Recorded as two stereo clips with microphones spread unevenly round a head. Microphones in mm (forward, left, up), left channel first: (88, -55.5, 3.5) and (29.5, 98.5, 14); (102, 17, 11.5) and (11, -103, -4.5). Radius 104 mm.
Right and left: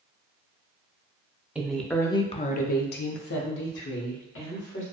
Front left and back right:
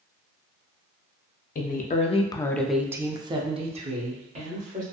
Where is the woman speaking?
25° left, 0.7 m; by 4.8 s 90° right, 1.4 m.